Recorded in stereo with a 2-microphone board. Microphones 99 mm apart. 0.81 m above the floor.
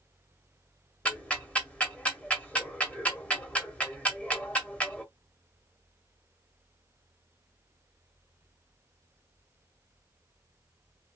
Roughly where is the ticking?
Centre.